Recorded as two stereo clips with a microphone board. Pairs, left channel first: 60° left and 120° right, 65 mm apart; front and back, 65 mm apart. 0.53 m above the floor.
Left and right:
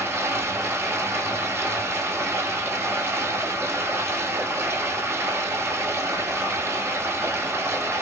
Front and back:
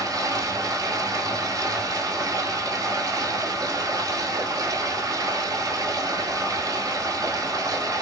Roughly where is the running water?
Behind.